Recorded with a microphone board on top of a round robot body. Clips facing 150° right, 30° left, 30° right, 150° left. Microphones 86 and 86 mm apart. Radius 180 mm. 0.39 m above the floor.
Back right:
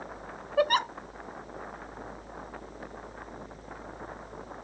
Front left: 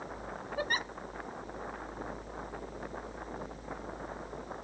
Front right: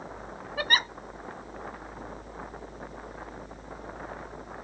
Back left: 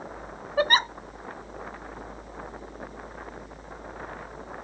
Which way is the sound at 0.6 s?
155° right.